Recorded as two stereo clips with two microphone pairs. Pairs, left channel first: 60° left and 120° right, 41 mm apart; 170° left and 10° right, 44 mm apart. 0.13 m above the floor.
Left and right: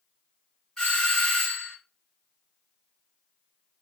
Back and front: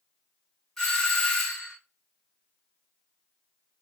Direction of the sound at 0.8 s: 100° left.